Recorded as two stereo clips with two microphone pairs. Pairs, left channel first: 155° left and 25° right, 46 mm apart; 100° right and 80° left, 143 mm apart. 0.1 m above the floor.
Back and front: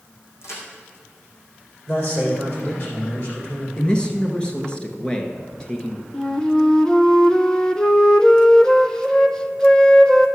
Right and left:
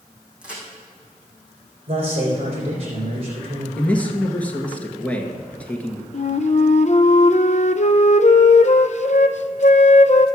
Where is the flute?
130° right, 0.5 m.